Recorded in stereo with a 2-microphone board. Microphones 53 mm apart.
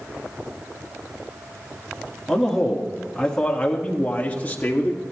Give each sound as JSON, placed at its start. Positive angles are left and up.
{"t": 2.3, "sound": "a man speaking", "side_deg": 0, "distance_m": 1.3}